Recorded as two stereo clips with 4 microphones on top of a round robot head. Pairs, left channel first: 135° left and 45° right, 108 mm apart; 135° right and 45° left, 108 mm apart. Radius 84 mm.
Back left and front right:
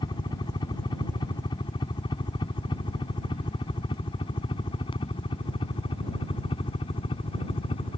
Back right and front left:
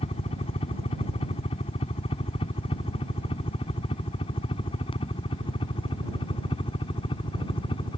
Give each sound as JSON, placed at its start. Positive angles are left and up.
{"t": 0.0, "sound": "a helicopter", "azimuth_deg": -170}